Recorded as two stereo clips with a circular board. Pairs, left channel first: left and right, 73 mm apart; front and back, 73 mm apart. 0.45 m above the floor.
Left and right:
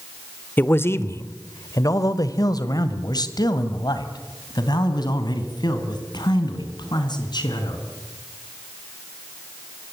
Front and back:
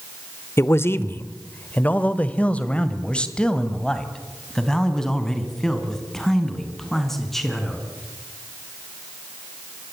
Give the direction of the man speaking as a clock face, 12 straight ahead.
11 o'clock.